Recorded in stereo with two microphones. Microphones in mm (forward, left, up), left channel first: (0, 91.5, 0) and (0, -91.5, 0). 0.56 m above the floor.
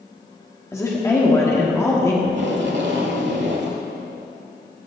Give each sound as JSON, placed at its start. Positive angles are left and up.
{"t": 0.7, "sound": "a woman speaking", "side_deg": 15, "distance_m": 1.3}
{"t": 2.2, "sound": "tape being pulled", "side_deg": -80, "distance_m": 1.1}